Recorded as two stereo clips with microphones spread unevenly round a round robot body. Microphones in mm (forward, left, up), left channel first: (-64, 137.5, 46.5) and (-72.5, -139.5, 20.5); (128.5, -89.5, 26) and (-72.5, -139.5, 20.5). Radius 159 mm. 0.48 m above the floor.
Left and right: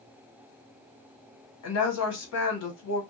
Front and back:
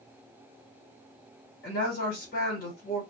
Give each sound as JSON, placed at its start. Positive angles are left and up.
{"t": 1.6, "sound": "a woman speaking", "azimuth_deg": 60, "distance_m": 1.2}